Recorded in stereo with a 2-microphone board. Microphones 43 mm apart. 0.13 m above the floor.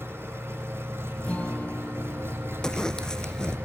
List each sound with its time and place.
0.0 s an engine running: 70° right (ahead or behind), 3.5 m
1.2 s a guitar: 35° left (ahead or behind), 4.5 m
2.6 s a zipper: 15° left (ahead or behind), 0.6 m